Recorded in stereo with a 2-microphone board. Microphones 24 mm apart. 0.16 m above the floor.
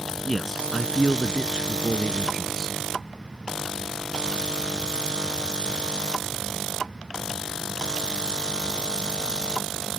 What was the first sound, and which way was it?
A man speaking, centre (ahead or behind).